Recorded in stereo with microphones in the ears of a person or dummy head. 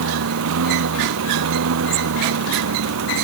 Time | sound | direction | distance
0.0 | a lawn mower | 75° right (ahead or behind) | ?